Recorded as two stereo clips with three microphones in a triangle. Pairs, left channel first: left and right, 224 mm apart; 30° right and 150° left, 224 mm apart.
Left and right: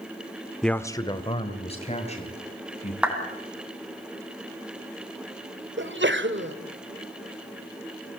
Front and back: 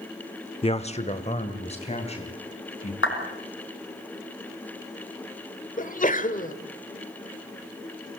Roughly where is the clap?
Ahead.